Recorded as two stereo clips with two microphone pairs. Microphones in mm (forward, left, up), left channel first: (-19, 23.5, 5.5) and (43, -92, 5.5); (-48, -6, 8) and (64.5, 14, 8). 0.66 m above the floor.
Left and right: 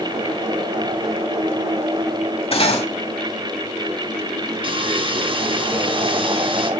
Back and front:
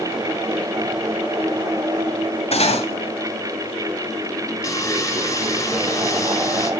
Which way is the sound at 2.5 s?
160° left.